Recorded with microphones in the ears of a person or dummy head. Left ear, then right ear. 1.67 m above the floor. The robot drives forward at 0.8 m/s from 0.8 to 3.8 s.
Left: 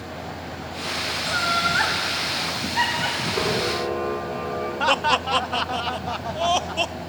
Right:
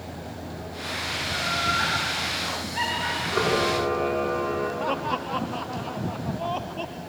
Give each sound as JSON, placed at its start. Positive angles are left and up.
{"t": 1.2, "sound": "laughter", "side_deg": 70, "distance_m": 2.5}
{"t": 3.3, "sound": "a camera shutter", "side_deg": -65, "distance_m": 5.0}
{"t": 4.8, "sound": "laughter", "side_deg": 65, "distance_m": 0.7}